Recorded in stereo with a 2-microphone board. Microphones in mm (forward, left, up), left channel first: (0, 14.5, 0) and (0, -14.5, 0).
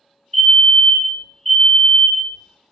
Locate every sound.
0.3 s a fire alarm: 15° left (ahead or behind), 2.0 m